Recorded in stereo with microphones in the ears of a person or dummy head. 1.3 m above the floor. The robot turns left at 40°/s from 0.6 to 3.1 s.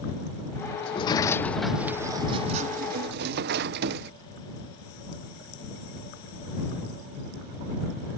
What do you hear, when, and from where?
0.8 s a sliding door: 35° left; by 4.1 s 55° right